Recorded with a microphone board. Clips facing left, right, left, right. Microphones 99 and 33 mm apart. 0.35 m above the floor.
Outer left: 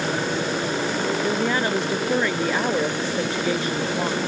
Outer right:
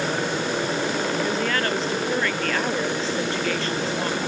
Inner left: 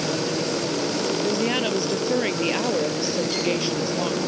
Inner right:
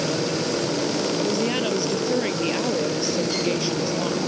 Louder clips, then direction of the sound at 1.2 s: Outer left 2 dB, even; 15° left (ahead or behind).